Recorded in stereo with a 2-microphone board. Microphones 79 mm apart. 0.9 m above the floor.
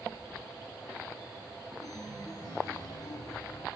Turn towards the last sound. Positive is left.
turn(degrees=45)  # may be behind; listen again after turning